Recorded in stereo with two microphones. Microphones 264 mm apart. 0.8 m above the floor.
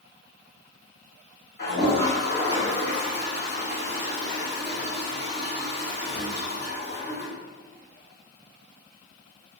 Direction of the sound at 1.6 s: 40° left (ahead or behind).